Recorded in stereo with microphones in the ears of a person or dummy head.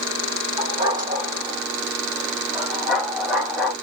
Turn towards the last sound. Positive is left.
turn(degrees=5)  # may be behind; listen again after turning